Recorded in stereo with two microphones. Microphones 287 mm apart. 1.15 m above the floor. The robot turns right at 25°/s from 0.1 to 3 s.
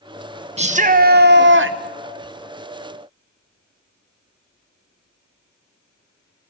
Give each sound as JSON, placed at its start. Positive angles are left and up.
{"t": 0.6, "sound": "a shout", "azimuth_deg": -155, "distance_m": 0.8}